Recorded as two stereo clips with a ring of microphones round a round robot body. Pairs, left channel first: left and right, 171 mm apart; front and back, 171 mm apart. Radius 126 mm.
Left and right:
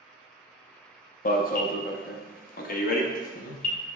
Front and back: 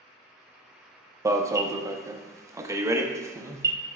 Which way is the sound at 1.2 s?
110° left.